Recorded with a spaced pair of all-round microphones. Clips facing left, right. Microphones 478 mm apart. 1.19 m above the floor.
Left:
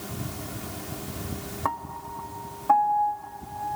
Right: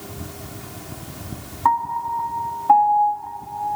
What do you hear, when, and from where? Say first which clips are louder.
1.6 s a piano: right 8 dB; 15° right (ahead or behind)